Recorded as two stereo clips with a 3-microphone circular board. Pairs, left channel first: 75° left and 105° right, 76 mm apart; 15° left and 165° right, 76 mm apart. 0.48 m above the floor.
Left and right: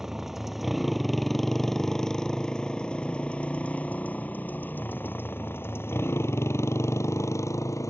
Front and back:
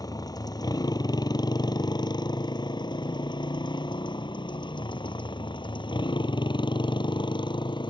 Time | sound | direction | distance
0.0 | a motorcycle | 20° right | ?